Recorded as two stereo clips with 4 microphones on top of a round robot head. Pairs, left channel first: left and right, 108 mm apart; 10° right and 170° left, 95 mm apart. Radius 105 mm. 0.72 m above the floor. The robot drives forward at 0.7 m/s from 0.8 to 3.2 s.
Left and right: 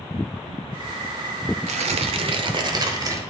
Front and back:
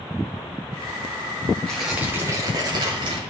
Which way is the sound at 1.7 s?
90° right.